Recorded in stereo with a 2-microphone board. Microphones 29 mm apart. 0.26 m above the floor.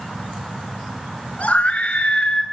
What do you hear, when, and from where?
1.4 s a scream: 50° left (ahead or behind), 3 m; by 2.4 s 40° left (ahead or behind), 4 m